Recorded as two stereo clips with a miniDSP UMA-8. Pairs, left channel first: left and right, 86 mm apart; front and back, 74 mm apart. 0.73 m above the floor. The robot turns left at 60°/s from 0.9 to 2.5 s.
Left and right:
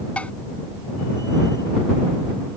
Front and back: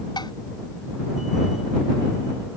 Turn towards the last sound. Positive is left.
turn(degrees=-80)